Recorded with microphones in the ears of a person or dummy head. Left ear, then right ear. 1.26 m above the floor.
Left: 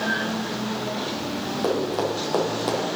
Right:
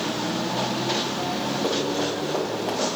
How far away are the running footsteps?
About 3 m.